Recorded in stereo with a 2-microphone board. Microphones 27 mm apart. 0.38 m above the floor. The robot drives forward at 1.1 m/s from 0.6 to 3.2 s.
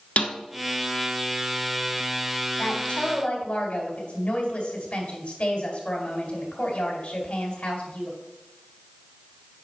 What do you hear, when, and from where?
0.2 s a snare drum: 65° left (ahead or behind), 1.1 m
2.6 s a woman speaking: 50° left (ahead or behind), 3 m; by 8.2 s 60° left (ahead or behind), 2.5 m